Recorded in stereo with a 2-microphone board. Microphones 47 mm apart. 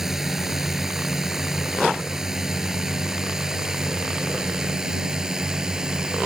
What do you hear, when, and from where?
0.0 s a drone: 10° right (ahead or behind); by 6.3 s 15° right (ahead or behind)